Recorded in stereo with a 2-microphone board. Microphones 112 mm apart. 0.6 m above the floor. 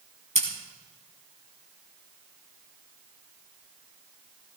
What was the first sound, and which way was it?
Scissors, 75° right (ahead or behind).